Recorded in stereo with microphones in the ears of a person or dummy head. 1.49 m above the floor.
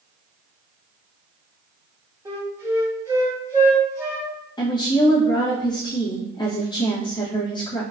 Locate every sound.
2.2 s a flute: 20° right (ahead or behind), 1.7 m
4.6 s a woman speaking: 20° left (ahead or behind), 1.5 m